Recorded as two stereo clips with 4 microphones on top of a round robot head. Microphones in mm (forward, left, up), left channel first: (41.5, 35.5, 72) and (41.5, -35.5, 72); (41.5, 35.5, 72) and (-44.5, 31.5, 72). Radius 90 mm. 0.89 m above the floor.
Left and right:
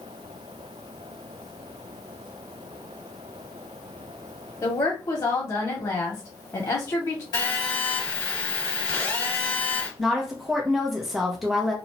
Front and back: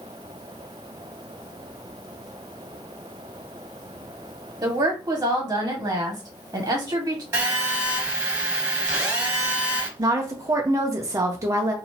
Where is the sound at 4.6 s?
130° left, 1.7 m.